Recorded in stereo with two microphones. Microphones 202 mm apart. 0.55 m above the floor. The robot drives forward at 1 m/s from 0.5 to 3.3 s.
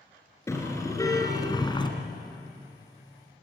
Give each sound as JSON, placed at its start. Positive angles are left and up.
{"t": 0.5, "sound": "a car horn", "side_deg": 15, "distance_m": 3.5}